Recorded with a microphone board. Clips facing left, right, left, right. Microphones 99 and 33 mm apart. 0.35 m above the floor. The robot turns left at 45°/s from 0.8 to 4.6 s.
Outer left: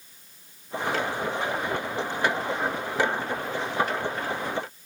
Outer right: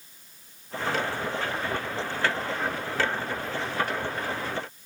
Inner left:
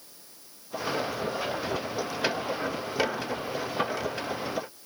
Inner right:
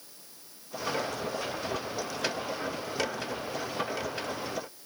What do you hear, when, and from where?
Only background noise.